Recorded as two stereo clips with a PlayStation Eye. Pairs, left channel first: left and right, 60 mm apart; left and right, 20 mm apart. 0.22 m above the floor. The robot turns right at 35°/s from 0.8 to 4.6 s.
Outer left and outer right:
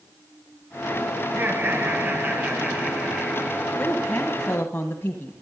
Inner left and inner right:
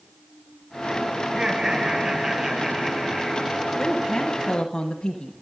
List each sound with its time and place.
1.2 s laughter: 100° right, 1.7 m; by 3.7 s 15° right, 1.7 m
3.8 s a woman speaking: 20° left (ahead or behind), 1.3 m; by 5.3 s 35° left (ahead or behind), 1.3 m